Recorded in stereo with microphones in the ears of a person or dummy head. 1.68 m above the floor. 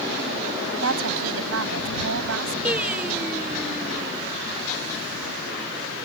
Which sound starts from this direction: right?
A woman speaking, at 0.8 s.